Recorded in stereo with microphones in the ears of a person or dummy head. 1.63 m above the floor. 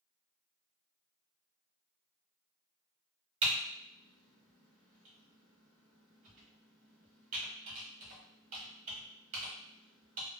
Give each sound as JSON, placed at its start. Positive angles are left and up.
{"t": 3.4, "sound": "typing on a keyboard", "side_deg": -40, "distance_m": 1.3}